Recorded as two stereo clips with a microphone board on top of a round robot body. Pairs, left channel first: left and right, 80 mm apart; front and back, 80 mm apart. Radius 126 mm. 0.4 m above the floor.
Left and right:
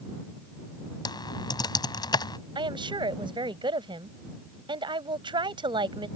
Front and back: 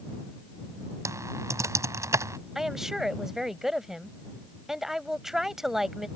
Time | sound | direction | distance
1.1 | typing on a keyboard | 125° left | ?
2.5 | a woman speaking | 95° right | ?